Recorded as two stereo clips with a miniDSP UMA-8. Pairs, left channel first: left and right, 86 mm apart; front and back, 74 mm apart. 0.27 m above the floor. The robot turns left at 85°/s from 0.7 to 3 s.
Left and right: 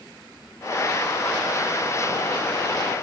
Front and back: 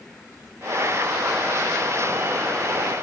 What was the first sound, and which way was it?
Only background noise.